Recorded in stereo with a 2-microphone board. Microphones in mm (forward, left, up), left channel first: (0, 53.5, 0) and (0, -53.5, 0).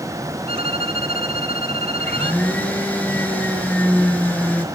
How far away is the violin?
About 1.6 m.